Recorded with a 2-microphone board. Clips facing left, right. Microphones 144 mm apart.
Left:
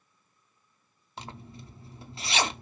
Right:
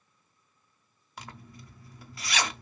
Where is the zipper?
25° left (ahead or behind), 0.5 m.